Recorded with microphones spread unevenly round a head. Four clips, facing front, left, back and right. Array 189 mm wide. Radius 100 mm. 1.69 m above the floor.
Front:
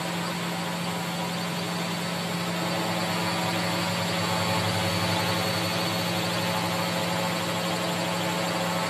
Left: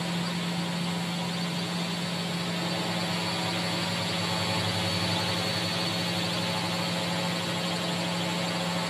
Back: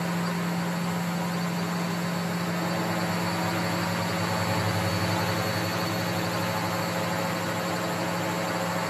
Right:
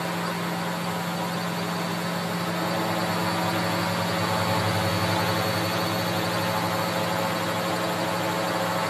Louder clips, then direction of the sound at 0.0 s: Right 4 dB, back 1 dB; 95° right.